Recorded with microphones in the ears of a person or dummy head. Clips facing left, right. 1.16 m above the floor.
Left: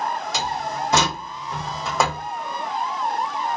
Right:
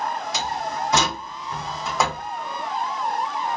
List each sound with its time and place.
0.3 s a door slam: 50° left (ahead or behind), 1.3 m